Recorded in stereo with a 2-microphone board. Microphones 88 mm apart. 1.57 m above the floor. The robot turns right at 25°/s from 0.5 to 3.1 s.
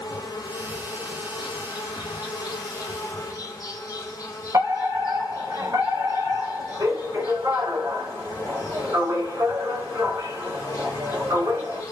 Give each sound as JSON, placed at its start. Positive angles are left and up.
{"t": 0.0, "sound": "an insect", "azimuth_deg": 65, "distance_m": 0.7}
{"t": 4.5, "sound": "a fire alarm", "side_deg": -40, "distance_m": 2.0}